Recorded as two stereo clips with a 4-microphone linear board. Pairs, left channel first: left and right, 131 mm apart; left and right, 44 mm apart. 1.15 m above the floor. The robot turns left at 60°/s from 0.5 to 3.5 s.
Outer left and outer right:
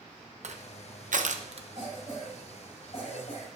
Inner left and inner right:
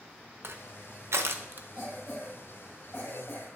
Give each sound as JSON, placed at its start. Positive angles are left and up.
{"t": 0.4, "sound": "crushing", "side_deg": -60, "distance_m": 0.7}
{"t": 1.8, "sound": "a cough", "azimuth_deg": -155, "distance_m": 5.5}